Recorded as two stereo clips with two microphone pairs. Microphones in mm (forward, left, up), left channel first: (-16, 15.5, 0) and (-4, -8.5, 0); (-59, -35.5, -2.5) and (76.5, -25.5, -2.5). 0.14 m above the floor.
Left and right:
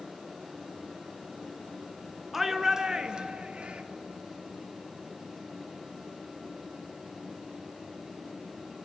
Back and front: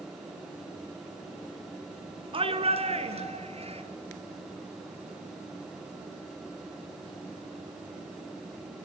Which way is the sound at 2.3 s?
15° left.